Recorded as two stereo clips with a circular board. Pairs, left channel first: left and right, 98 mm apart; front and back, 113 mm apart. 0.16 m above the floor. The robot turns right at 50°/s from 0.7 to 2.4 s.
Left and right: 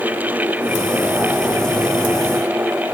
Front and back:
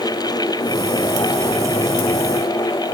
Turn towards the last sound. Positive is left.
No sound to turn to.